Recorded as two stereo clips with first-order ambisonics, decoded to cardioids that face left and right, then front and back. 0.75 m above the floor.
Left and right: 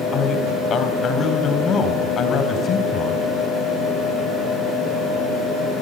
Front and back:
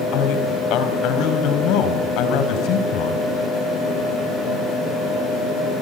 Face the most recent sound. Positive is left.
turn(degrees=30)